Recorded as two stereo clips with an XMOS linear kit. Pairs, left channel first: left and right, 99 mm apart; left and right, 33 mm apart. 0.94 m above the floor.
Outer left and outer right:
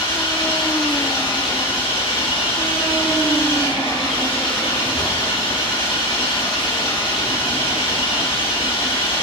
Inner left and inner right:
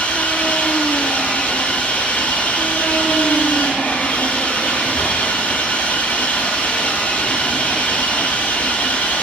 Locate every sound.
0.0 s an engine running: 85° left, 7.5 m